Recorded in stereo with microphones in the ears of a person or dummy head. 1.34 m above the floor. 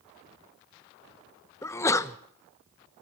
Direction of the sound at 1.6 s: 15° left (ahead or behind).